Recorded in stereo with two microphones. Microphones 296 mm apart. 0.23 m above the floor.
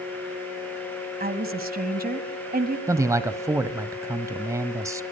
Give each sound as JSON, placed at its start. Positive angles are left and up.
{"t": 1.2, "sound": "a woman speaking", "side_deg": -30, "distance_m": 1.6}
{"t": 2.9, "sound": "a man speaking", "side_deg": -10, "distance_m": 1.0}